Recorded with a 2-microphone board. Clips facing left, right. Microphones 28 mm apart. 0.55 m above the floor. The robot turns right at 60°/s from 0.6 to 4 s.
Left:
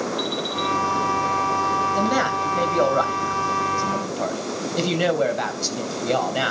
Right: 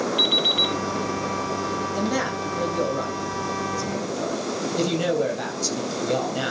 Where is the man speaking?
20° left (ahead or behind), 3 m; by 6.5 s 35° left (ahead or behind), 3 m.